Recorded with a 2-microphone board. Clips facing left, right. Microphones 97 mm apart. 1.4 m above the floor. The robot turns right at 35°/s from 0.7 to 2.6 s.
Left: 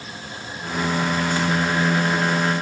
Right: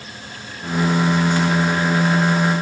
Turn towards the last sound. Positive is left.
No sound to turn to.